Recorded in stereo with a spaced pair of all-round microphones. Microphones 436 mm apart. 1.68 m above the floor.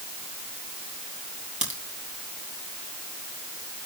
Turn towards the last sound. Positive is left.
turn(degrees=-15)  # may be behind; listen again after turning